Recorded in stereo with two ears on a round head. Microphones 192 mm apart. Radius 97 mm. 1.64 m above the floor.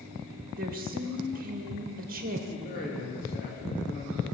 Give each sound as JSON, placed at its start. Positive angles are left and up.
{"t": 0.6, "sound": "a woman speaking", "side_deg": -45, "distance_m": 1.9}
{"t": 2.5, "sound": "a man speaking", "side_deg": 45, "distance_m": 2.5}